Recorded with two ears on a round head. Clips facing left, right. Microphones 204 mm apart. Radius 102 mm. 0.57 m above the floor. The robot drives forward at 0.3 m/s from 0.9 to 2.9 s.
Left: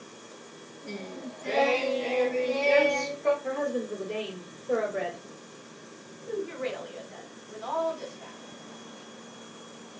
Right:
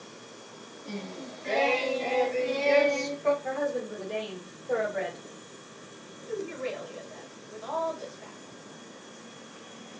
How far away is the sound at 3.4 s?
About 1.7 m.